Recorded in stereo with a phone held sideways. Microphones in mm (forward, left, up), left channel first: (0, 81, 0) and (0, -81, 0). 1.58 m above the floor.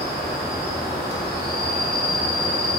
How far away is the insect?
About 0.9 m.